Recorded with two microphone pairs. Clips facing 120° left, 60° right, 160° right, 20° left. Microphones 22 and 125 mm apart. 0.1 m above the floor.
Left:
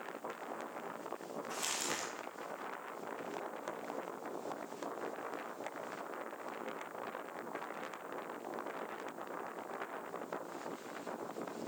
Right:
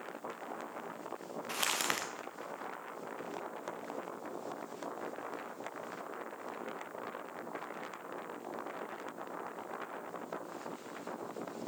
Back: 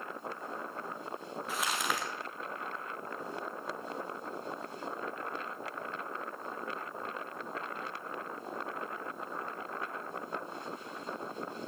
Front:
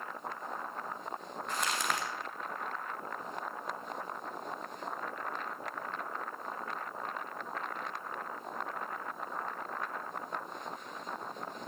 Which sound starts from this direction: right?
Crumpling, at 1.5 s.